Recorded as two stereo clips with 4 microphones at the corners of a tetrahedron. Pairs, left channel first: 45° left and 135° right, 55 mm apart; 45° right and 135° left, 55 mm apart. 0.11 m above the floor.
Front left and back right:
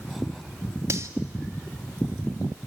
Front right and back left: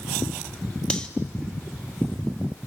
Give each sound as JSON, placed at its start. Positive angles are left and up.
{"t": 0.9, "sound": "cutlery clinking", "azimuth_deg": -110, "distance_m": 1.3}